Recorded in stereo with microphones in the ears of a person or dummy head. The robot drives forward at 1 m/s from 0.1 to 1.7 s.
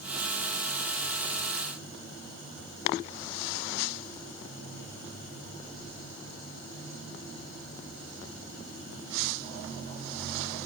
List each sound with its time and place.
Only background noise.